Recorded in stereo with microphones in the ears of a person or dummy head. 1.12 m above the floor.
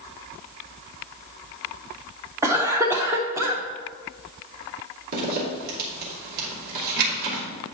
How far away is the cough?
About 0.6 m.